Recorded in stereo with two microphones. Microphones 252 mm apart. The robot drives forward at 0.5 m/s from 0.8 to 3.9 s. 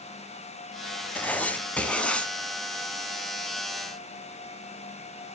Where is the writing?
5° left (ahead or behind), 0.9 m.